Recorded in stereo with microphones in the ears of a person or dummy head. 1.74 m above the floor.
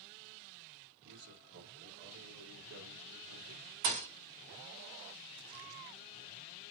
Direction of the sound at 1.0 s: 60° right (ahead or behind).